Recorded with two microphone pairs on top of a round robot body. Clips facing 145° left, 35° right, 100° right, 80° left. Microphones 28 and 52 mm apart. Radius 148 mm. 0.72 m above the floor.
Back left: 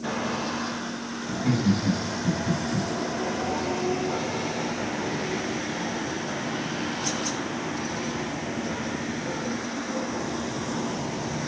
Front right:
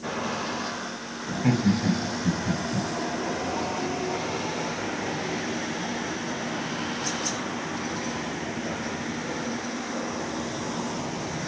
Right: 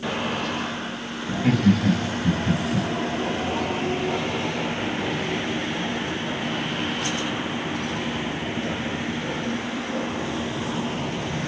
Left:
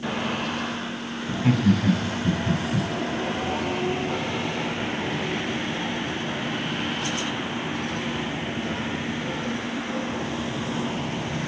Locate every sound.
1.3 s laughter: 15° right, 5 m